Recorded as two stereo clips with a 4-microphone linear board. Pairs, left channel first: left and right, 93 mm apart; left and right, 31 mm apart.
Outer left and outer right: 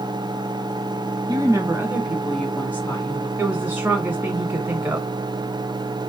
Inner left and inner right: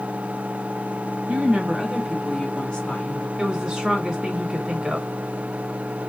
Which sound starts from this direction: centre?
A woman speaking, at 3.4 s.